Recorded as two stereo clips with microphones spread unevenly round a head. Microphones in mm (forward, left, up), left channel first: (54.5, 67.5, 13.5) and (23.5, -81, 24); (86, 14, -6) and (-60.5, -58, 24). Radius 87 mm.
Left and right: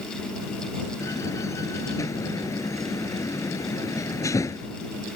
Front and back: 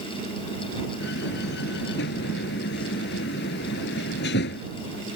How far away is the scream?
I don't hear a scream.